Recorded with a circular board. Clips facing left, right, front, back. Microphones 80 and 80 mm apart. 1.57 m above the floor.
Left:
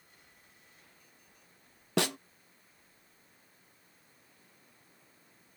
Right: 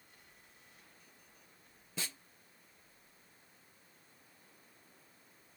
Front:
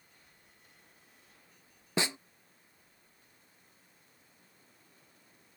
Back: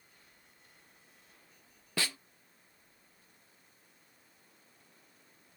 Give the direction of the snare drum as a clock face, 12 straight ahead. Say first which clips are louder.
Left 16 dB, front 4 dB; 10 o'clock.